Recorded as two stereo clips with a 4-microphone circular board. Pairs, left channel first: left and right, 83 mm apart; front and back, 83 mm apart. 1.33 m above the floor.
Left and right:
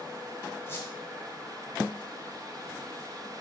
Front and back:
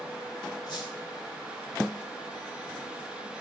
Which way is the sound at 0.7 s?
30° left.